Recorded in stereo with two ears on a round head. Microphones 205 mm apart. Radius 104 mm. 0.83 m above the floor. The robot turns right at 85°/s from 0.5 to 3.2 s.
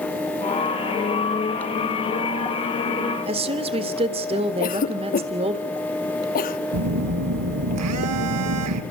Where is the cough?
40° left (ahead or behind), 1.5 m.